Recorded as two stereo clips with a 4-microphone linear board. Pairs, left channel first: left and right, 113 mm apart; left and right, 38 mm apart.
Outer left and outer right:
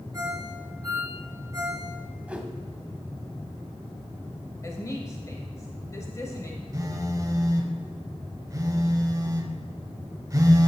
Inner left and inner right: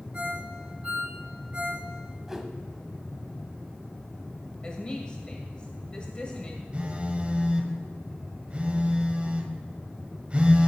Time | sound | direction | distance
0.1 | a ringtone | 30° right (ahead or behind) | 3 m
2.3 | a whoosh | 10° right (ahead or behind) | 0.9 m
4.6 | a woman speaking | 30° left (ahead or behind) | 1.2 m
6.7 | a phone buzzing | 30° right (ahead or behind) | 0.9 m